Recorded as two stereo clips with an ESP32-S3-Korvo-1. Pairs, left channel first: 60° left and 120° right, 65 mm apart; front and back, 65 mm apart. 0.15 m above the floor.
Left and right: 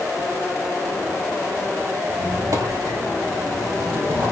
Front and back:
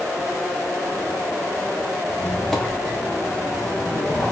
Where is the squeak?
90° right, 4 m.